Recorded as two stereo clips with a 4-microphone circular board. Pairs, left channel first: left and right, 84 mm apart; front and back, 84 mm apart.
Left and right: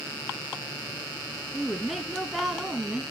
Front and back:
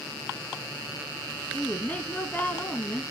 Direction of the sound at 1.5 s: Straight ahead.